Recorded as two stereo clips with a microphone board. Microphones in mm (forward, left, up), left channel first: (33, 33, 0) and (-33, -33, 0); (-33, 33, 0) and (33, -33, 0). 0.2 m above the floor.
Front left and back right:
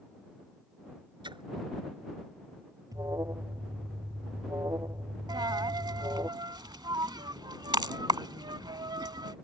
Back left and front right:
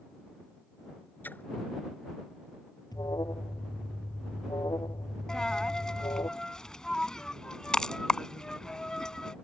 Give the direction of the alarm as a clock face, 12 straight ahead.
6 o'clock.